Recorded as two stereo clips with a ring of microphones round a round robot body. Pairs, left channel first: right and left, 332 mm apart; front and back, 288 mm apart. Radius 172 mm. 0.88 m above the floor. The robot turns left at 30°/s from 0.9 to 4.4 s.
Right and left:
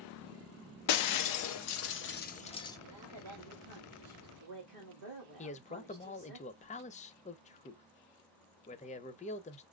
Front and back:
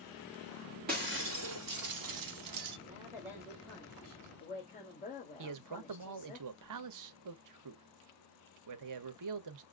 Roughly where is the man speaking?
Behind.